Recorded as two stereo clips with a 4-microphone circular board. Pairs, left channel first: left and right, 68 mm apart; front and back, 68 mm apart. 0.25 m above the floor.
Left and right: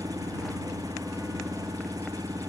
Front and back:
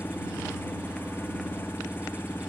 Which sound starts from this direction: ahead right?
An engine running, at 0.0 s.